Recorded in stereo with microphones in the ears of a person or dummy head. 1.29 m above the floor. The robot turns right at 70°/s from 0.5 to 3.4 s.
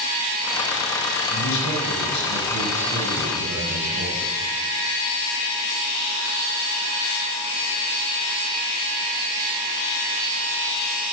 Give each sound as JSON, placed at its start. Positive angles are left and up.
{"t": 1.3, "sound": "a man speaking", "azimuth_deg": 80, "distance_m": 8.0}